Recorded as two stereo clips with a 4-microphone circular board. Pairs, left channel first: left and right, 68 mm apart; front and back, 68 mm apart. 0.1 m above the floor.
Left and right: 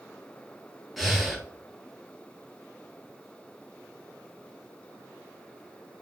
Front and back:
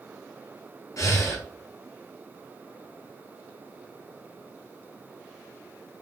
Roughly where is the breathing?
Ahead.